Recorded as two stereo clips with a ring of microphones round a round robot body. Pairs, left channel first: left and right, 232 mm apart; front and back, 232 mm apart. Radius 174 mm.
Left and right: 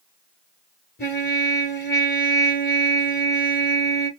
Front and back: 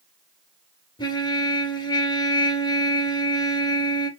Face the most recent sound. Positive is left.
turn(degrees=65)